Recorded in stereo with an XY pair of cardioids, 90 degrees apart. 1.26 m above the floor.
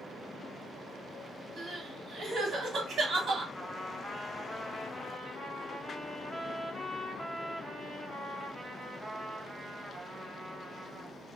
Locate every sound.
1.6 s crying: 65° right, 1.1 m
3.5 s a trumpet: 25° right, 0.8 m